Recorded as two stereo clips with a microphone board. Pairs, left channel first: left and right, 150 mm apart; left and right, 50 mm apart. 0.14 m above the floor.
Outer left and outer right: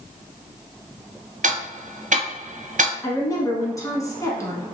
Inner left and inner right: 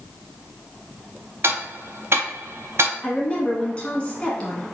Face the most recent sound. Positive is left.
turn(degrees=20)  # may be behind; listen again after turning